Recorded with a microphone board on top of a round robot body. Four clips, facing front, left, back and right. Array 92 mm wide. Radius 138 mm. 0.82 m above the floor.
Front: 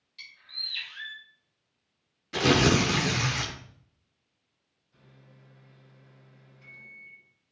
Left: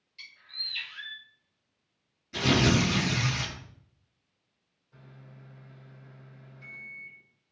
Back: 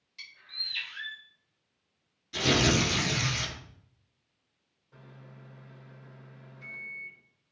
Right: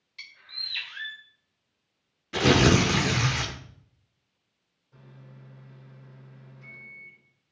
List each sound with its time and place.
0.2 s a bird: 105° right, 1.7 m
2.3 s tearing paper: 55° right, 0.9 m
4.9 s a microwave: 175° right, 4 m